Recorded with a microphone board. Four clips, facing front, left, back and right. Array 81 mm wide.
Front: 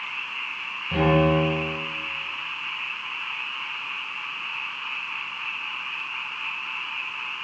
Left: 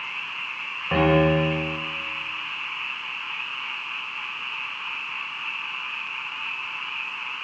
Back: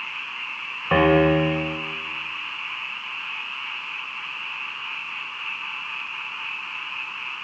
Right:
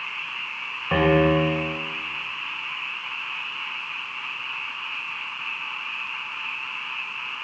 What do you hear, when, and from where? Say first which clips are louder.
0.9 s a piano: right 1 dB, back 3 dB; 175° right, 6 m